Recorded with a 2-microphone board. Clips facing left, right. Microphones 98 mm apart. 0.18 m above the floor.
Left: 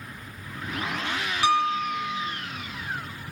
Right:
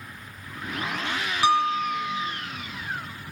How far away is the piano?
About 0.7 m.